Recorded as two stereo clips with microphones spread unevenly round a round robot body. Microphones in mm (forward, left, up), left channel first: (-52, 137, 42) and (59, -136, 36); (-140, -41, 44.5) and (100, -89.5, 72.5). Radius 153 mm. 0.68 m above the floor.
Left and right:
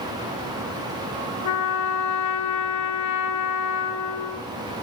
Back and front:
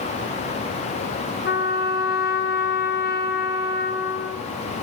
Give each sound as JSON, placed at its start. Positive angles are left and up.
{"t": 1.4, "sound": "a trumpet", "azimuth_deg": 130, "distance_m": 0.7}